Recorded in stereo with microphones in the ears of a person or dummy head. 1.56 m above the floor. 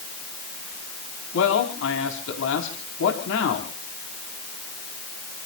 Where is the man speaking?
85° left, 4 m.